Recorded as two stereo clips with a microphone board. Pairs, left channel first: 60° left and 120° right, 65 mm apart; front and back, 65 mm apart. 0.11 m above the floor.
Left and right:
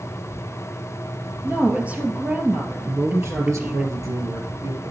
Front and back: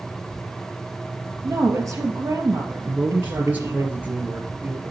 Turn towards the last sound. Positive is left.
turn(degrees=-120)